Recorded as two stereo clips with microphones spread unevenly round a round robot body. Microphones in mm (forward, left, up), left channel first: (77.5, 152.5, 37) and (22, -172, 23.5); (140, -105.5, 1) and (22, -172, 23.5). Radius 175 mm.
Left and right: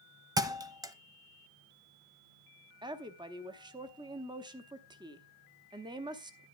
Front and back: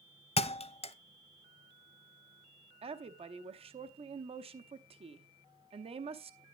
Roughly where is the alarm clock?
No alarm clock in this recording.